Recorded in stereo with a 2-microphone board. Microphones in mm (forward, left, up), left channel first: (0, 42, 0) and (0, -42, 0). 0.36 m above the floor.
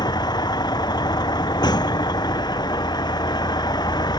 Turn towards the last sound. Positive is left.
turn(degrees=60)  # may be behind; listen again after turning